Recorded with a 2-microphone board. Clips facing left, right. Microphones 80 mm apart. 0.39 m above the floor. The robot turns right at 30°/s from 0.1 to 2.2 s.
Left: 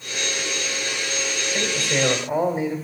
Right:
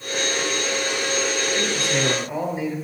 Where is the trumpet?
I don't hear a trumpet.